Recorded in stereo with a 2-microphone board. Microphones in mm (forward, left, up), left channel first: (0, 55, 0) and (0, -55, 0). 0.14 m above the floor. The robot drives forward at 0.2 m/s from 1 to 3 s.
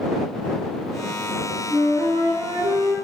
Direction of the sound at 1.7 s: 20° right (ahead or behind).